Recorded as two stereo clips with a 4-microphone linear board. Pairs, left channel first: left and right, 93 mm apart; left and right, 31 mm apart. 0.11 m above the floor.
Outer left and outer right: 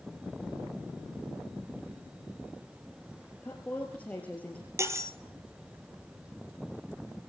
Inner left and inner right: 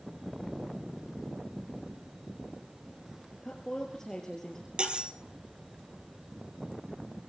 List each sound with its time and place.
3.4 s a woman speaking: 15° left (ahead or behind), 2.5 m
4.8 s cutlery clinking: 30° right (ahead or behind), 1.9 m